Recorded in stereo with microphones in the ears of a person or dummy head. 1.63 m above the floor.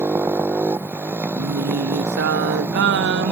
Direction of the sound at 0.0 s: 15° right (ahead or behind).